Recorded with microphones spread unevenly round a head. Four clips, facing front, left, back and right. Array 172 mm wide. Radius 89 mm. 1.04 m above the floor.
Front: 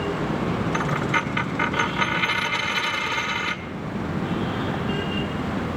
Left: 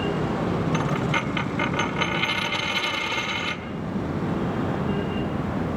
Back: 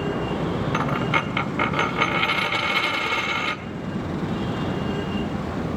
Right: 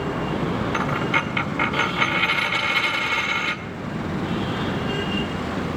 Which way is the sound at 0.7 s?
Straight behind.